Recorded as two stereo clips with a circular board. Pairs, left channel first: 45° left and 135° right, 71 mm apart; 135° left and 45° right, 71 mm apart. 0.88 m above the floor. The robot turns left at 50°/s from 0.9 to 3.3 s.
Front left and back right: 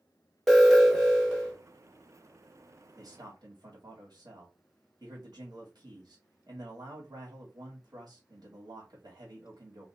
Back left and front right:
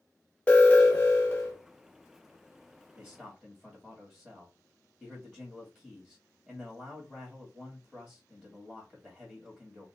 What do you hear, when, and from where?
0.5 s an alarm: 130° left, 1.4 m; by 1.6 s 100° left, 1.4 m
3.0 s a man speaking: 100° right, 1.6 m; by 9.9 s 115° right, 1.6 m